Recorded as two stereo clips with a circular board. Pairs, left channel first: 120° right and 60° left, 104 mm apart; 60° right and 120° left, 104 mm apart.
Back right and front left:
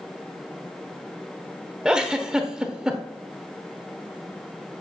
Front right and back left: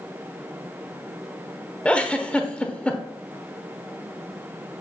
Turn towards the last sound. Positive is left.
turn(degrees=-10)